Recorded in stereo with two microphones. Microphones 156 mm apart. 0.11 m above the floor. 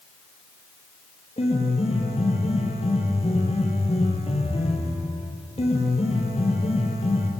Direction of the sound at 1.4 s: 40° left (ahead or behind).